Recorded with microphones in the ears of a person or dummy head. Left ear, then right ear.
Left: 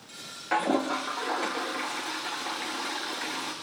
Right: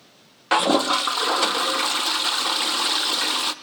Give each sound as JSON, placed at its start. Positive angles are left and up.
{"t": 0.5, "sound": "a toilet flushing", "side_deg": -55, "distance_m": 0.6}